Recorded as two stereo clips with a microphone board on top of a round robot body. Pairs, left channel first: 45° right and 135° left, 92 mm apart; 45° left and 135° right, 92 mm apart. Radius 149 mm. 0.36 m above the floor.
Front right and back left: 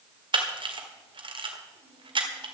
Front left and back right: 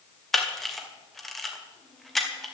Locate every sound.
0.3 s a camera shutter: 130° left, 2.5 m